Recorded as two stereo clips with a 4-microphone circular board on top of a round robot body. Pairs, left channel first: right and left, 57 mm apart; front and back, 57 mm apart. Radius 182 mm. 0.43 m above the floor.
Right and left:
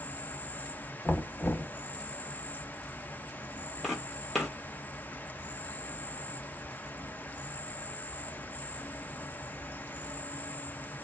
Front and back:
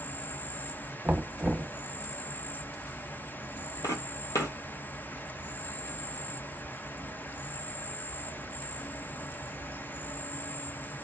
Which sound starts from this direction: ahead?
Footsteps, at 3.8 s.